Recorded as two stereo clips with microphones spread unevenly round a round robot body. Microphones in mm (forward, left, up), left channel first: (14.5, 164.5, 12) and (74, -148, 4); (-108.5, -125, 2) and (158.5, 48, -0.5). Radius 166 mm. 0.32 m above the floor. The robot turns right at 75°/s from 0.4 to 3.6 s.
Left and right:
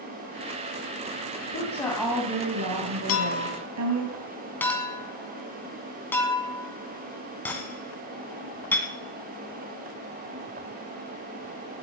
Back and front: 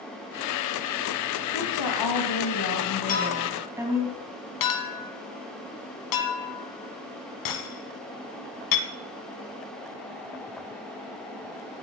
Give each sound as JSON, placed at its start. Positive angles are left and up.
{"t": 1.5, "sound": "a woman speaking", "azimuth_deg": 160, "distance_m": 2.5}
{"t": 3.1, "sound": "a clink", "azimuth_deg": 145, "distance_m": 1.9}